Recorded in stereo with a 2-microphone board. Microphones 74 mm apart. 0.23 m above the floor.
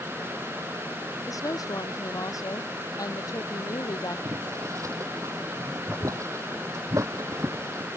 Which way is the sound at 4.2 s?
45° right (ahead or behind).